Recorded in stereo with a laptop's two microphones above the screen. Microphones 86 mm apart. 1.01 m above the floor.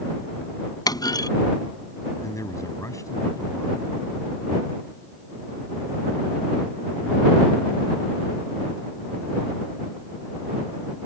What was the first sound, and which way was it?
A clunk, 50° left (ahead or behind).